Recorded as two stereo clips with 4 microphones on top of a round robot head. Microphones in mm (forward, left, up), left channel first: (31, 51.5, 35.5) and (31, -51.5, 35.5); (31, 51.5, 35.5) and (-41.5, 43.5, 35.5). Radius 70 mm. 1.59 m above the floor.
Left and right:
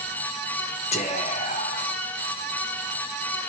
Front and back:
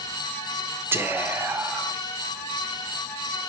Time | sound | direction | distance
0.9 | whispering | 125° left | 1.4 m